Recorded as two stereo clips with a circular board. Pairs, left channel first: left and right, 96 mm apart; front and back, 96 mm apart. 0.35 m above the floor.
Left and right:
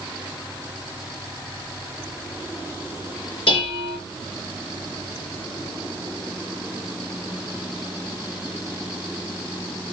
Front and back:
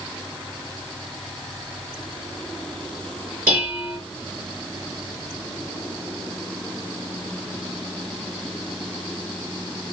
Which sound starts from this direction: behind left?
Dishes clattering, at 3.5 s.